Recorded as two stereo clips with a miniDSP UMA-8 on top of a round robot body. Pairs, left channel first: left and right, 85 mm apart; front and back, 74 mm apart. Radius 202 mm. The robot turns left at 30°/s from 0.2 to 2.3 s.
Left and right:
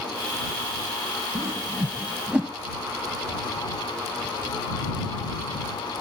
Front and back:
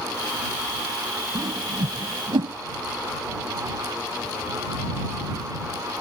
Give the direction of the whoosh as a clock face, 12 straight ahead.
5 o'clock.